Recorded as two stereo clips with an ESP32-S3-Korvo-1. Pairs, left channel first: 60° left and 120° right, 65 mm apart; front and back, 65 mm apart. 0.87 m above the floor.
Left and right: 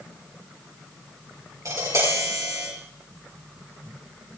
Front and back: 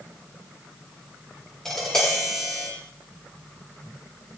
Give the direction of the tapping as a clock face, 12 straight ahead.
3 o'clock.